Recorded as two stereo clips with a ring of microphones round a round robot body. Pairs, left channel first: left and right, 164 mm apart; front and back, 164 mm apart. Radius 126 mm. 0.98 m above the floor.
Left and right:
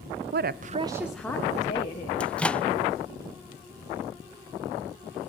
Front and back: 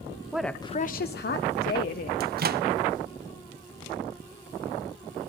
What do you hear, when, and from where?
0.3 s a woman speaking: 100° right, 0.8 m; by 2.1 s 25° left, 1.8 m
2.2 s a microwave: 175° left, 0.7 m